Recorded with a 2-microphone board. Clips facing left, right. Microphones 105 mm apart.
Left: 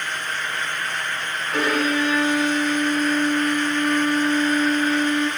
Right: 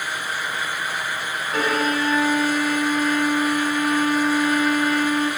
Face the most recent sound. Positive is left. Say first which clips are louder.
# left 1 dB
turn(degrees=0)  # may be behind; listen again after turning